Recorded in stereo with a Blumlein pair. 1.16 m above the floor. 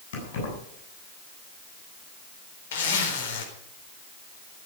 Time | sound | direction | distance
0.1 | keys jangling | 55° left | 8 m
2.7 | a zipper | 60° left | 4 m